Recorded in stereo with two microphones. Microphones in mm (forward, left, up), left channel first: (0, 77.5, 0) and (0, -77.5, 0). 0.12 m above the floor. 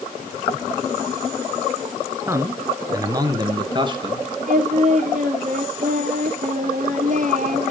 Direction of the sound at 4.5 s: 55° right (ahead or behind).